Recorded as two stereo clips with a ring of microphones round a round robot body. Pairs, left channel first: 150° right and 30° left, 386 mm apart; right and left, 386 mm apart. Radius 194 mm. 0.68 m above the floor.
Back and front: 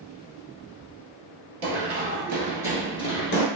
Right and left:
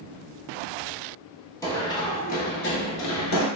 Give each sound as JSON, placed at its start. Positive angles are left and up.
{"t": 1.6, "sound": "running footsteps", "azimuth_deg": -10, "distance_m": 1.2}